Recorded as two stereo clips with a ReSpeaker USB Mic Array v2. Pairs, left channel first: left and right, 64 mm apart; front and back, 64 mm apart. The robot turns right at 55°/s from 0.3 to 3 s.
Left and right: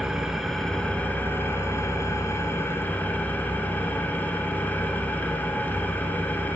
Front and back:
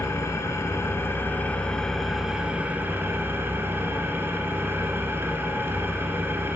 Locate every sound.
0.0 s an engine running: 10° right, 0.9 m; by 6.6 s 140° left, 0.9 m